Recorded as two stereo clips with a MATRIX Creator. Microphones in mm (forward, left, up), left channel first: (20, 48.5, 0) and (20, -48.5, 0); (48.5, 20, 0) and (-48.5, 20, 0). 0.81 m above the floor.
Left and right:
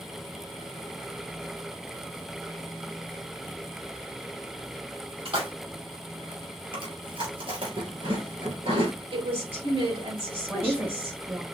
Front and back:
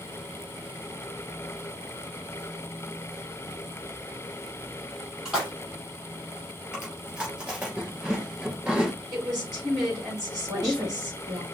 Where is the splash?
100° right, 2.5 m.